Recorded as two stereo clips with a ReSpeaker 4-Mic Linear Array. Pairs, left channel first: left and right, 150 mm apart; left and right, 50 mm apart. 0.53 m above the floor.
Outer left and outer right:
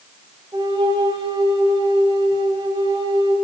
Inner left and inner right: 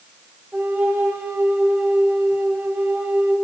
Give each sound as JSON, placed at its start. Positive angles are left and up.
{"t": 0.5, "sound": "a flute", "side_deg": -35, "distance_m": 0.8}